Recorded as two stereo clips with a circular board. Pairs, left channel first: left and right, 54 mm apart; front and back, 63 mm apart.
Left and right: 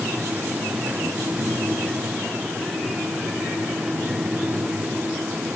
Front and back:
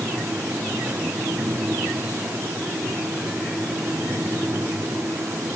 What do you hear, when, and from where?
Only background noise.